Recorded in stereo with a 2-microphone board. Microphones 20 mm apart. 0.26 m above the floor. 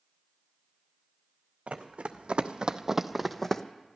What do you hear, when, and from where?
1.7 s running footsteps: 80° right, 1.1 m; by 3.6 s 20° left (ahead or behind), 0.8 m